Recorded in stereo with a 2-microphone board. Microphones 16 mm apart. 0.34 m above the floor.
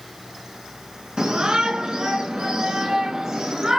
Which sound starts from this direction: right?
A shout, at 1.2 s.